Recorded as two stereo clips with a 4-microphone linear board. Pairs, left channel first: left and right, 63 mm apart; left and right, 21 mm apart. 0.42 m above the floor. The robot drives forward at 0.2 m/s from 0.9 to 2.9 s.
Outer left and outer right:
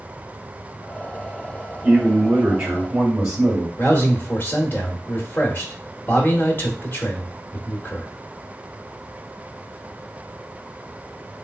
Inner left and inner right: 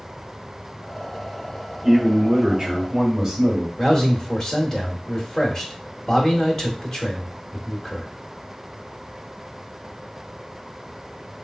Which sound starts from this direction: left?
A man speaking, at 3.8 s.